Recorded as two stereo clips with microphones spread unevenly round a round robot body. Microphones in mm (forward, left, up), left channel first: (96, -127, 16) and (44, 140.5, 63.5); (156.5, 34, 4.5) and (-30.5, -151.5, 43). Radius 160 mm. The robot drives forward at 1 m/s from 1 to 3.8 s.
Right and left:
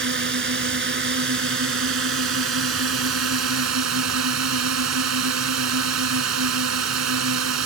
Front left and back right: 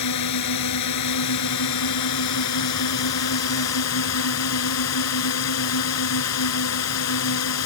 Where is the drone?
55° left; by 7.7 s 70° left.